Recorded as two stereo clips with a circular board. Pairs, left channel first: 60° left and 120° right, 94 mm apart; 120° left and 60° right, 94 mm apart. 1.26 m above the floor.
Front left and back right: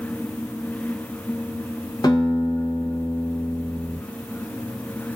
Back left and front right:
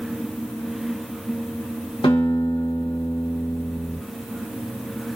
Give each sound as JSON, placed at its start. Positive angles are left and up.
{"t": 2.0, "sound": "a guitar", "azimuth_deg": 105, "distance_m": 0.7}